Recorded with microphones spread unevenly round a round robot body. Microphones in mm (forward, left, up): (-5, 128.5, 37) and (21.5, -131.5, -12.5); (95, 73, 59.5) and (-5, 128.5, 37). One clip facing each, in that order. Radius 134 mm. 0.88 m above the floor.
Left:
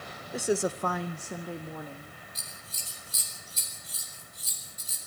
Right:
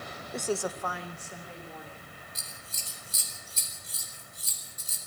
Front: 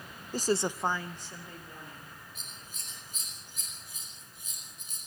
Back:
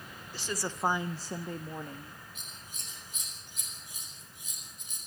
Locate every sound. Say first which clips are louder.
0.3 s a woman speaking: left 4 dB, front 8 dB; straight ahead, 0.8 m; by 2.2 s 145° left, 1.9 m
2.4 s scissors: even, even; 120° right, 5 m